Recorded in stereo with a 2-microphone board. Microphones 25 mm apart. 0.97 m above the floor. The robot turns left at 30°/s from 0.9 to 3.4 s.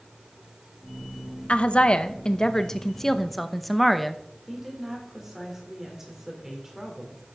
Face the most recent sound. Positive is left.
turn(degrees=-15)  # may be behind; listen again after turning